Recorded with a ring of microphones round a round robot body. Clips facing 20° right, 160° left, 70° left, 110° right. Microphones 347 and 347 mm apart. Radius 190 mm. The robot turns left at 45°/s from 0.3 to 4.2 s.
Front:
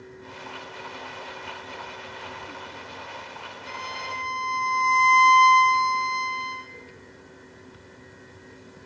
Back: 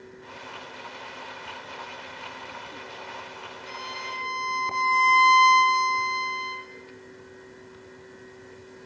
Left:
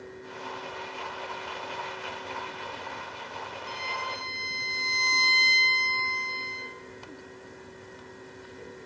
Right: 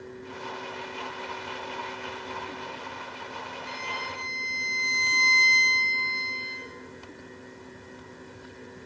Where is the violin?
Straight ahead, 4 m; by 6.6 s 20° right, 4 m.